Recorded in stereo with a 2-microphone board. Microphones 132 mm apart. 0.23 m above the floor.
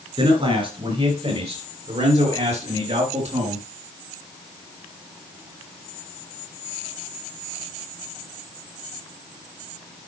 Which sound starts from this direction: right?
A man speaking, at 0.2 s.